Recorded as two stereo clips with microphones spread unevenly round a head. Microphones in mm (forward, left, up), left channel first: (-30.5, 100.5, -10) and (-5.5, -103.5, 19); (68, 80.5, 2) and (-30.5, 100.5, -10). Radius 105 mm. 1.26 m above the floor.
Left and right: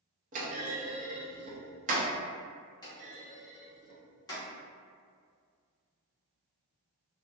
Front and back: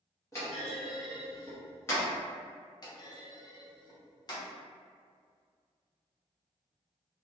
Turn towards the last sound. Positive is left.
turn(degrees=35)